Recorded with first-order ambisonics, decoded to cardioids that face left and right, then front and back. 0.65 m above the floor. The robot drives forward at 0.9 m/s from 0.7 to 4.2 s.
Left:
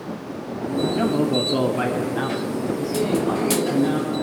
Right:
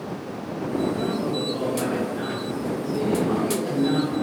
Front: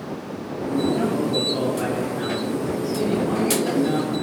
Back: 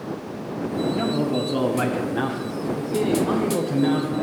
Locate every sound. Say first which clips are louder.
0.9 s a man speaking: left 5 dB, front 1 dB; 80° left, 1.1 m; by 4.2 s 160° left, 3 m